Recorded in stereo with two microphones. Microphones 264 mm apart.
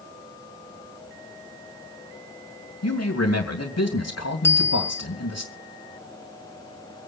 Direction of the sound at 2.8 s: 70° left (ahead or behind).